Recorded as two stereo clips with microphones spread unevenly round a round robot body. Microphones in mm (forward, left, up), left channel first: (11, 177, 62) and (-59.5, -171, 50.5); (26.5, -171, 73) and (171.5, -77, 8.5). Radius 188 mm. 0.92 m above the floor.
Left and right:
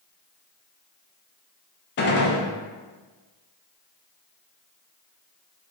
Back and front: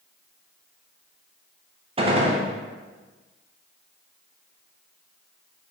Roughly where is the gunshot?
Ahead left.